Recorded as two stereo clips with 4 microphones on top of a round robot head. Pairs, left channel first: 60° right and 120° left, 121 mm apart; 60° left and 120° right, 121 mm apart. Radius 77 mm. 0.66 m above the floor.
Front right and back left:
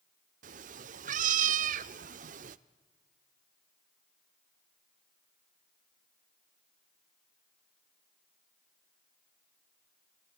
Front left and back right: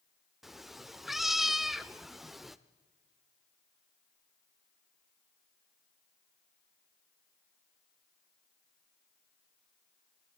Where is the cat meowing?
150° left, 0.5 m.